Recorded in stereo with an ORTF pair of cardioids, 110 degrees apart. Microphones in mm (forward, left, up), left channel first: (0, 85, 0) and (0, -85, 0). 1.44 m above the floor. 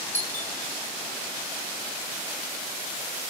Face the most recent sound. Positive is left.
turn(degrees=15)